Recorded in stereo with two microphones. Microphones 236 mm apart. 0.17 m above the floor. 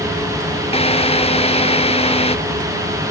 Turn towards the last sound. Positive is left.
turn(degrees=25)  # may be behind; listen again after turning